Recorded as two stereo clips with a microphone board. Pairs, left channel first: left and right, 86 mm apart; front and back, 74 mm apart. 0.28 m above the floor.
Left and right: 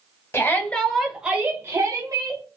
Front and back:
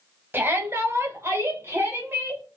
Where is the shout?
135° left, 1.2 m; by 2.4 s 125° right, 1.8 m.